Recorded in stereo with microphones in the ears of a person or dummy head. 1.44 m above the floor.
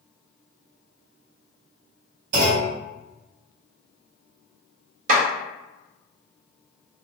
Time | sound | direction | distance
2.3 | a clunk | 45° right (ahead or behind) | 1.9 m
5.1 | a clap | 55° right (ahead or behind) | 1.4 m